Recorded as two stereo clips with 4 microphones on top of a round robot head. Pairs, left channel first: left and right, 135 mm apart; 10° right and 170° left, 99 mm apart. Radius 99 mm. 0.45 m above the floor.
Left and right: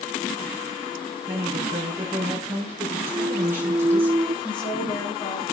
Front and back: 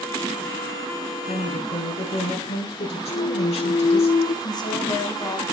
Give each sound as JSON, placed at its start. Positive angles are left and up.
{"t": 1.3, "sound": "a woman speaking", "azimuth_deg": -15, "distance_m": 6.0}
{"t": 3.1, "sound": "a clunk", "azimuth_deg": -25, "distance_m": 0.6}
{"t": 4.4, "sound": "a woman speaking", "azimuth_deg": 30, "distance_m": 4.5}